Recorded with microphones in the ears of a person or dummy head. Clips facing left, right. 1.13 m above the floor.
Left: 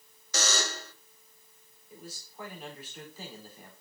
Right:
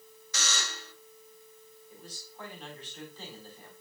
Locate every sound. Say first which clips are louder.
0.3 s a buzzer: left 7 dB; 35° left (ahead or behind), 0.8 m
1.9 s a man speaking: left 4 dB; 10° left (ahead or behind), 3.5 m